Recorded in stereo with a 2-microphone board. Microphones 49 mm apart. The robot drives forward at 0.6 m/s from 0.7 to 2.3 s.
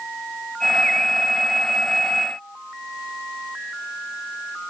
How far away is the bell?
I don't hear a bell.